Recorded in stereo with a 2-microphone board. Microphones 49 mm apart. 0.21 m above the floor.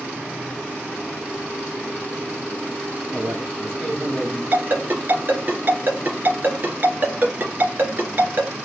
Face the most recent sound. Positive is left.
turn(degrees=-40)  # may be behind; listen again after turning